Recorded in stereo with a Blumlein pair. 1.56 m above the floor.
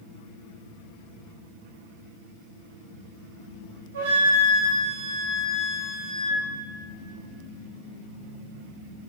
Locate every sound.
3.9 s a flute: 65° right, 0.7 m